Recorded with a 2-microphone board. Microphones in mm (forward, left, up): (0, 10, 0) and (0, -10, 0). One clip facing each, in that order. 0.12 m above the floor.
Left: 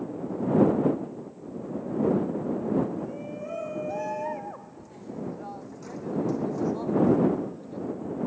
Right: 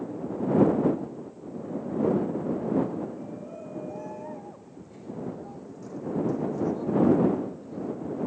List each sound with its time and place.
3.0 s a shout: 65° left (ahead or behind); by 7.9 s 25° left (ahead or behind)